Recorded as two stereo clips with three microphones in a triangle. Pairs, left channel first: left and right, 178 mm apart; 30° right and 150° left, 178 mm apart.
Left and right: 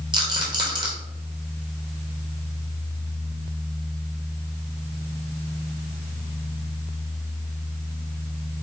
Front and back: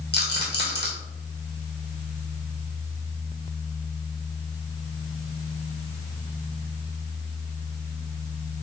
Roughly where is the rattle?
Ahead right.